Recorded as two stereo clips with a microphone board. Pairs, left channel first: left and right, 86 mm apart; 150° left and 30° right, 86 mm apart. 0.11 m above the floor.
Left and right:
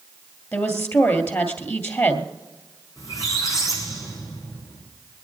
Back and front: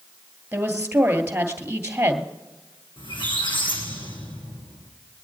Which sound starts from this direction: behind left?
A squeak, at 3.0 s.